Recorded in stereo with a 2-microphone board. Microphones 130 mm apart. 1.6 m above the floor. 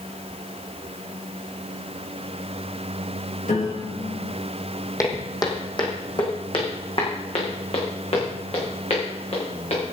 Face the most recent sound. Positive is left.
turn(degrees=60)  # may be behind; listen again after turning